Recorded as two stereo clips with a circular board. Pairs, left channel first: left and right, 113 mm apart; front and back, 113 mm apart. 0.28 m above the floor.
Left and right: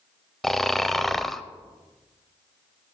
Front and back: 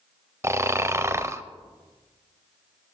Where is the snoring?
175° left, 0.6 m.